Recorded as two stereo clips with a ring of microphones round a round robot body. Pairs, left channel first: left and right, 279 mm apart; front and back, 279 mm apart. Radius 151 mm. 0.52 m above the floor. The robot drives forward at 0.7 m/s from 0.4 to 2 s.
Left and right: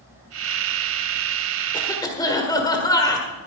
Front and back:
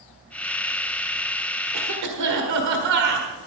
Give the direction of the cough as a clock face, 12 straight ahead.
7 o'clock.